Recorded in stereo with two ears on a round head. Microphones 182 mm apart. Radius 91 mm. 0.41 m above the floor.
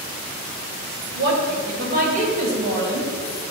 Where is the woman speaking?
55° right (ahead or behind), 2 m; by 3.1 s 25° right (ahead or behind), 3 m.